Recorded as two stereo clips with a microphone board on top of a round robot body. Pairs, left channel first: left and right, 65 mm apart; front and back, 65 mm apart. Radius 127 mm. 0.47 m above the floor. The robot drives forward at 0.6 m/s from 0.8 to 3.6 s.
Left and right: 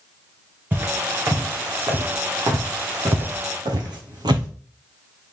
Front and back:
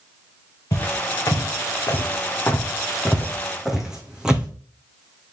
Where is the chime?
No chime in this recording.